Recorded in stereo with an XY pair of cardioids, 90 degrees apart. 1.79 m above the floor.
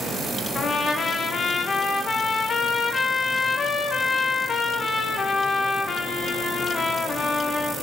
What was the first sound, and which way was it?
A trumpet, 50° left.